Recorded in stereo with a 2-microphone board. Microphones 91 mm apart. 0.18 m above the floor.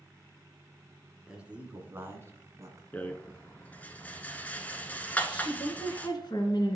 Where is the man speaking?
10° right (ahead or behind), 2 m; by 2.8 s 40° right (ahead or behind), 1.7 m.